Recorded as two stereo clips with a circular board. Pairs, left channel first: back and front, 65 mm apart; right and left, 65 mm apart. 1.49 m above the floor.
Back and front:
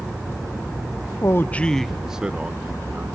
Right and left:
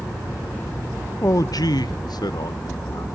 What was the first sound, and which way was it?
A man speaking, 140° right.